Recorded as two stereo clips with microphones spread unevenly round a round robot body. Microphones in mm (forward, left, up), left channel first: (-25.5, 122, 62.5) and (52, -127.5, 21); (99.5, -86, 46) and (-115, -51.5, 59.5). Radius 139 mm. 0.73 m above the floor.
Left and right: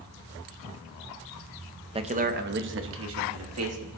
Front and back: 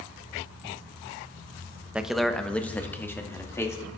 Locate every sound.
1.9 s a man speaking: 100° right, 0.9 m; by 3.9 s 85° right, 2.5 m